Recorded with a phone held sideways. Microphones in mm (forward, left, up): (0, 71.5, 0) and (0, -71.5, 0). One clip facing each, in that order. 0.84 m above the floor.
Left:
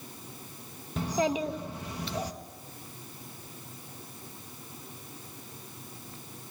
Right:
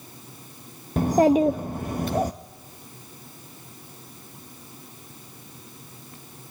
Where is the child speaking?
50° right (ahead or behind), 0.5 m.